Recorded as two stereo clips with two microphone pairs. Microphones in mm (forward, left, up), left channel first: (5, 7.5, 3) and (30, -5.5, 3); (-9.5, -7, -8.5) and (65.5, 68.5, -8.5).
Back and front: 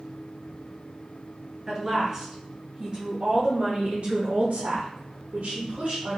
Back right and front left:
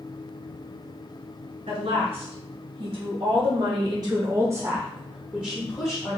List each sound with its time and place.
1.7 s a woman speaking: 45° left, 2 m; by 6.2 s 75° right, 1.1 m